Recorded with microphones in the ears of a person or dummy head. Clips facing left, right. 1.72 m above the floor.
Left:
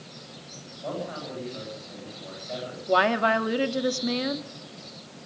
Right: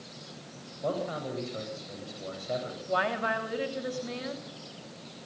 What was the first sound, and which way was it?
A man speaking, 45° right (ahead or behind).